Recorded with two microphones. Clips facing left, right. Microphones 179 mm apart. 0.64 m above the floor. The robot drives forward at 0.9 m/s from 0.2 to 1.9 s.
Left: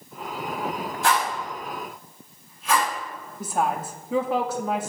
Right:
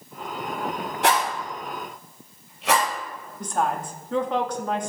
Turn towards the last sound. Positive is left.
turn(degrees=5)  # may be behind; listen again after turning